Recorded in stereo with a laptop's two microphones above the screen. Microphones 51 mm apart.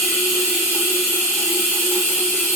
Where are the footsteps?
I don't hear footsteps.